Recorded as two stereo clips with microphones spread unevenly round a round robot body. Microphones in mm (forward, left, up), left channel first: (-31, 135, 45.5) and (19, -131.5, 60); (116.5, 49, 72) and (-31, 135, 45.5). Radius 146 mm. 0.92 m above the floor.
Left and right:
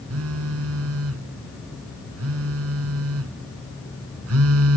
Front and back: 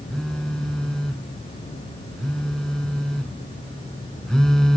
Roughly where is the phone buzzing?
Behind right.